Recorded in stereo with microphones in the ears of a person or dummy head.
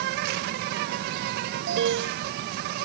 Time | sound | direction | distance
0.0 | an insect | 45° right (ahead or behind) | ?
1.7 | an alarm | 65° right (ahead or behind) | ?